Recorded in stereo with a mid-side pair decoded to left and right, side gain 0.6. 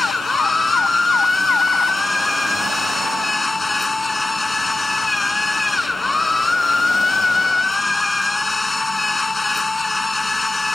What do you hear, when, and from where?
0.0 s a machine running: 10° left